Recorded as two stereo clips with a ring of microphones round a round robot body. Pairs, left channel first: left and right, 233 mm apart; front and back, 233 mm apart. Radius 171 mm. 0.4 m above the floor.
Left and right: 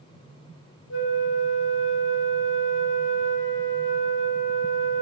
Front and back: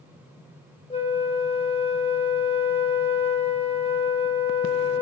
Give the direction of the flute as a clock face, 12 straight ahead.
10 o'clock.